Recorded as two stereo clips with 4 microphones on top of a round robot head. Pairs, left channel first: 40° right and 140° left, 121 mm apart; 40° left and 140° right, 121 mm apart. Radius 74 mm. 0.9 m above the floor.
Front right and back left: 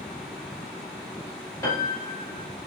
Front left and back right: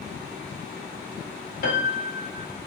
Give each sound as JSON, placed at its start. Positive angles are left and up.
{"t": 1.6, "sound": "a piano", "azimuth_deg": 25, "distance_m": 1.2}